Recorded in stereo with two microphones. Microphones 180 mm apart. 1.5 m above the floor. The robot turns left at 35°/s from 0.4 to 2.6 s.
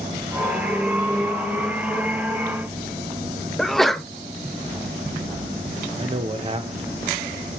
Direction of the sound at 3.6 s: Centre (ahead or behind).